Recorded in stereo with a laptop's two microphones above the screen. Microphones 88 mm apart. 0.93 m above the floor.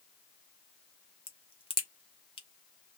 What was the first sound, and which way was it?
A crack, 80° left.